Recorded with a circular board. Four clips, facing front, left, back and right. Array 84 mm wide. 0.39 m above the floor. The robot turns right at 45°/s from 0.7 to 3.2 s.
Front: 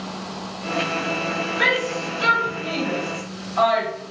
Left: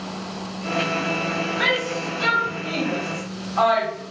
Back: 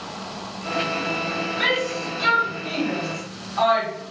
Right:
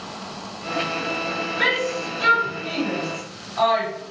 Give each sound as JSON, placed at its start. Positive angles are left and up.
{"t": 1.6, "sound": "a shout", "azimuth_deg": -35, "distance_m": 1.9}